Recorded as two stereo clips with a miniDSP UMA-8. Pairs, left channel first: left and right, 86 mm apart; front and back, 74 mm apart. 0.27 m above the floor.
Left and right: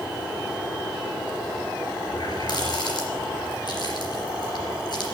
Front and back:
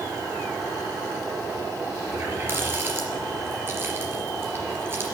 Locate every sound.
2.1 s a running tap: 120° left, 3 m